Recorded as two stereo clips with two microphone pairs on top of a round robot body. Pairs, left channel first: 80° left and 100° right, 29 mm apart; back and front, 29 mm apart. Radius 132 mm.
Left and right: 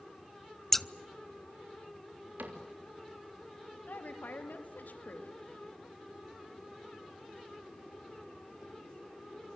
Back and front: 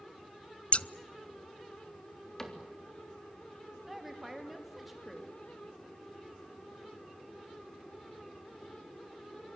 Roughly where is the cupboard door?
Right.